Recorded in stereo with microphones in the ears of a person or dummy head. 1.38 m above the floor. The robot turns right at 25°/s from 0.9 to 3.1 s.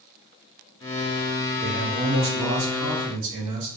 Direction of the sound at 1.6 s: 145° right.